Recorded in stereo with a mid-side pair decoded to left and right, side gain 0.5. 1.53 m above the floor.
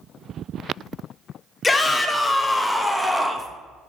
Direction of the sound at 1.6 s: 25° left.